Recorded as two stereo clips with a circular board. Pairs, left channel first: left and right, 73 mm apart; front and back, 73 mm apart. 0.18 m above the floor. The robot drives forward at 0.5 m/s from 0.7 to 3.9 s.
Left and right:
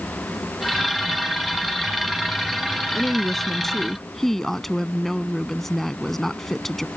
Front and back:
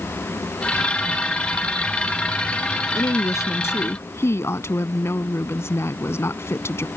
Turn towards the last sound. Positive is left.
turn(degrees=5)